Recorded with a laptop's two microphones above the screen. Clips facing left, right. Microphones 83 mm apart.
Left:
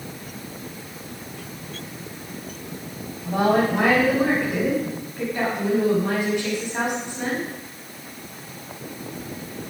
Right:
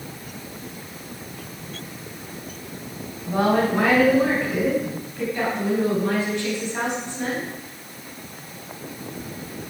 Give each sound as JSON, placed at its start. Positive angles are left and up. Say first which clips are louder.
{"t": 3.2, "sound": "a woman speaking", "louder": "even", "side_deg": 20, "distance_m": 6.0}